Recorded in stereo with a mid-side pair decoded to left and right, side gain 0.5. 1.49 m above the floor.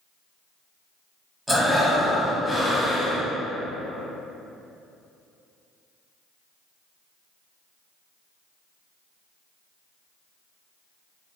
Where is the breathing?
10° right, 0.9 m.